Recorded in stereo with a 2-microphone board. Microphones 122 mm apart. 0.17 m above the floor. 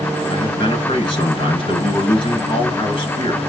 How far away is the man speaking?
About 1.7 m.